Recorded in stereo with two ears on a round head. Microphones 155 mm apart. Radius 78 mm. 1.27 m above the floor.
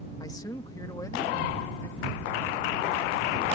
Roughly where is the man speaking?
Left.